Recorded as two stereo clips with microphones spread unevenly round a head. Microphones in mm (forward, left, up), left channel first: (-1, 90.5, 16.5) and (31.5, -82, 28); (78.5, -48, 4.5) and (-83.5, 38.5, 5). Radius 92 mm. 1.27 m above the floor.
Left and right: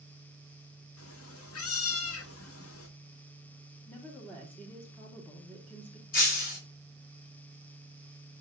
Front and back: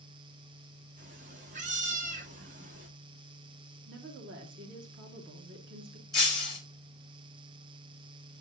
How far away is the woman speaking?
About 3 m.